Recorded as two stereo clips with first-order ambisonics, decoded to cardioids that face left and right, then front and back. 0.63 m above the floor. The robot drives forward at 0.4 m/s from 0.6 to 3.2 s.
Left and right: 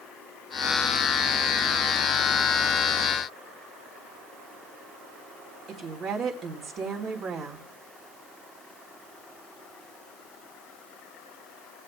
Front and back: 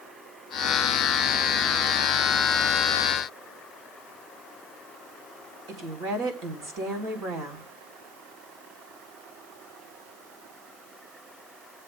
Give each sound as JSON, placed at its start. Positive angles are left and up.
{"t": 5.7, "sound": "a woman speaking", "azimuth_deg": -145, "distance_m": 4.0}